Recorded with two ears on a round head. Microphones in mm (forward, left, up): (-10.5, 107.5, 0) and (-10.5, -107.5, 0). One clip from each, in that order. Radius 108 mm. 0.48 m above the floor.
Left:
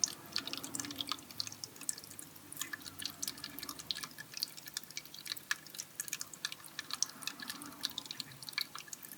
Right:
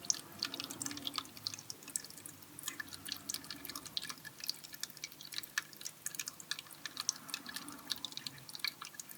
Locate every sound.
Only background noise.